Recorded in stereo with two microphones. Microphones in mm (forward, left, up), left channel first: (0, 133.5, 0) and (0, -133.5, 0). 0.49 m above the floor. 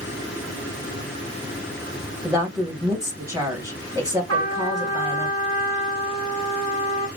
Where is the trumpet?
75° right (ahead or behind), 0.9 m.